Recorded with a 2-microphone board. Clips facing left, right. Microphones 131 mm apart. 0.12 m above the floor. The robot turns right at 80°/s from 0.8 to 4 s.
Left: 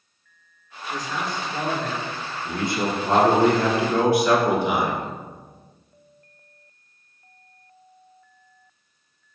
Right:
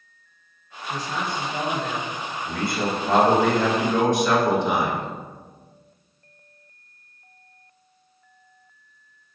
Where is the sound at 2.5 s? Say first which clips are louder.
Left 1 dB; 15° left (ahead or behind), 1.1 m; by 5.0 s 10° left (ahead or behind), 1.1 m.